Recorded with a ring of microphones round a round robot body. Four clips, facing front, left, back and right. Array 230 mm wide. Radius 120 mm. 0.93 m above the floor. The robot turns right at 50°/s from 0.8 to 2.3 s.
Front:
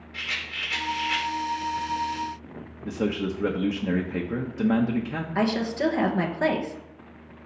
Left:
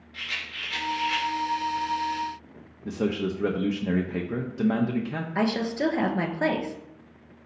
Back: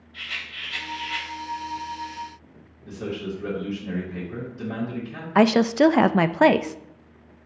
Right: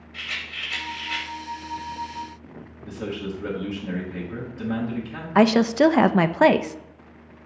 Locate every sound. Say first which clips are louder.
0.1 s a rattle: right 2 dB, front 2 dB; 5° right, 2 m; by 1.3 s 15° left, 2 m
2.9 s a man speaking: left 4 dB, front 4 dB; 40° left, 0.9 m
5.3 s a woman speaking: right 10 dB, back 8 dB; 135° right, 0.5 m